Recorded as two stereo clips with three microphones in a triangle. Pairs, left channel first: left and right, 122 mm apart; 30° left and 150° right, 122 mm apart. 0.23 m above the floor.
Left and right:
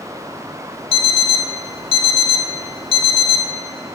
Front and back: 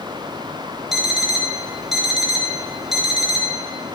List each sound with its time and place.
0.9 s an alarm clock: 120° left, 0.6 m